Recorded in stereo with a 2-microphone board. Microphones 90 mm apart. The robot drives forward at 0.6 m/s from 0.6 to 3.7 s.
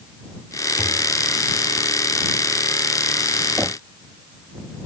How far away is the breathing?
No breathing in this recording.